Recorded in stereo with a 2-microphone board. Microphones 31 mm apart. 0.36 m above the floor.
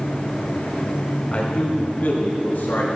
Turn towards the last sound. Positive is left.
turn(degrees=65)  # may be behind; listen again after turning